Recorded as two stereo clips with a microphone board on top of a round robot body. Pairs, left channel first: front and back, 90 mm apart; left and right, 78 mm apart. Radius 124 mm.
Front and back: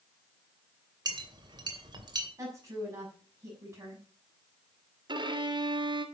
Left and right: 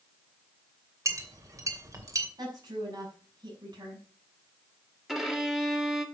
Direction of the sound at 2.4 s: 120° right.